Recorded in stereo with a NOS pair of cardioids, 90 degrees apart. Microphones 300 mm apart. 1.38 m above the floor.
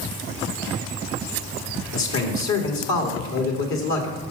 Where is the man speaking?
65° left, 2.5 m.